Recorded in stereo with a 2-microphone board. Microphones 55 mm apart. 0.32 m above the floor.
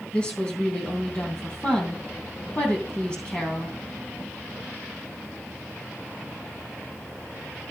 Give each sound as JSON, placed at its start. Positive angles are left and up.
{"t": 0.1, "sound": "a woman speaking", "side_deg": 20, "distance_m": 3.0}